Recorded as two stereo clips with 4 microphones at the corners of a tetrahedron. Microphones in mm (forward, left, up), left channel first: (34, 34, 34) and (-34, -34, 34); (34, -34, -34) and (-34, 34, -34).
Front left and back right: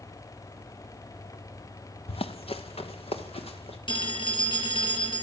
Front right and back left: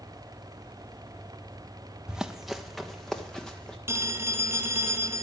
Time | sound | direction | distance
2.1 | running footsteps | 50° left | 1.5 m
3.9 | a phone ringing | 70° left | 3 m